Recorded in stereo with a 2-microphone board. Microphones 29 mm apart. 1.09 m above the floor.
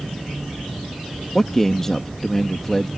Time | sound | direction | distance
1.4 | a man speaking | 15° left (ahead or behind) | ?